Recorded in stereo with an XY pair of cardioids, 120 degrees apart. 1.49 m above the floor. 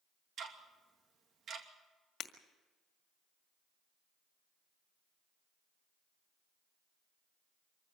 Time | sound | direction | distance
0.4 | ticking | 50° right | 2.5 m
2.2 | breaking glass | 55° left | 1.9 m